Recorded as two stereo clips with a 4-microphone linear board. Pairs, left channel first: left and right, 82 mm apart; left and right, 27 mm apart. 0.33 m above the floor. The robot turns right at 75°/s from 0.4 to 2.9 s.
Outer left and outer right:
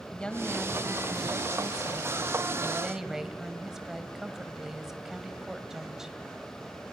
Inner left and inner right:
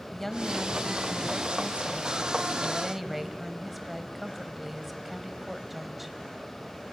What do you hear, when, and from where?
0.1 s a woman speaking: 165° left, 1.4 m; by 6.2 s 10° right, 1.4 m